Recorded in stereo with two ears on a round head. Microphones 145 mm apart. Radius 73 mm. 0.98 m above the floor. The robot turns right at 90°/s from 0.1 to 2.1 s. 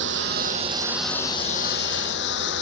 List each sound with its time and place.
0.0 s a lawn mower: 80° right; by 2.6 s 85° left